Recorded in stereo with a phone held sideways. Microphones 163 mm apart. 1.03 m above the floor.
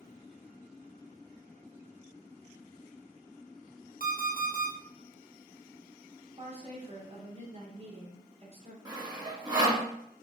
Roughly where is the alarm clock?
Left.